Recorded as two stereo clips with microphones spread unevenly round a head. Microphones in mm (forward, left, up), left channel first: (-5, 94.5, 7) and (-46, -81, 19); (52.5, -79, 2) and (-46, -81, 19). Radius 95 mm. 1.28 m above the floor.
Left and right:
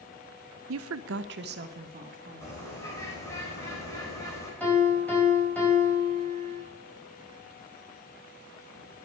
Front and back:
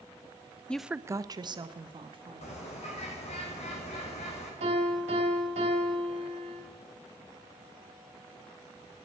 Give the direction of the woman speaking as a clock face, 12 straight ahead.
3 o'clock.